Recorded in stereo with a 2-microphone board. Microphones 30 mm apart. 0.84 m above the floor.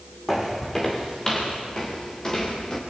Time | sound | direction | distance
0.3 | footsteps | 5° left (ahead or behind) | 3 m